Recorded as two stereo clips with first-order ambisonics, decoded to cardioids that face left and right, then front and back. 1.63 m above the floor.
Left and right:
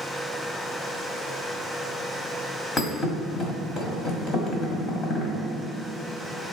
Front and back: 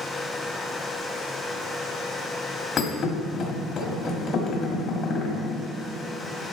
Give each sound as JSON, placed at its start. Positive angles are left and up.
{"t": 2.8, "sound": "a thud", "azimuth_deg": 50, "distance_m": 1.7}